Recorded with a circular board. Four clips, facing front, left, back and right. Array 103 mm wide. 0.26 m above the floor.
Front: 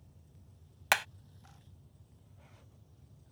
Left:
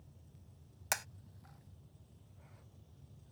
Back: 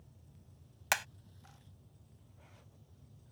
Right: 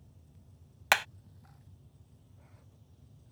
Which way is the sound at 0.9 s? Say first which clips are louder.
Right 12 dB, front 4 dB; 65° right.